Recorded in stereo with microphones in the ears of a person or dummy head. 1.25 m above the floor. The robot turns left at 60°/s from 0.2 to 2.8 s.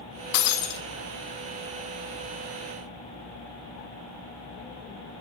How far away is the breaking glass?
About 1.1 m.